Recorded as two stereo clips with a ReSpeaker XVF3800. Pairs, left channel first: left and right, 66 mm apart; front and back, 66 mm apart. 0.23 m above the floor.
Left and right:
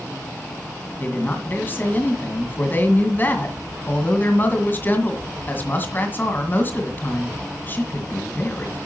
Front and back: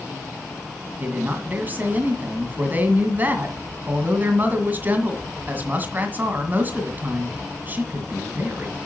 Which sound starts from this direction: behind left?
A woman speaking, at 1.0 s.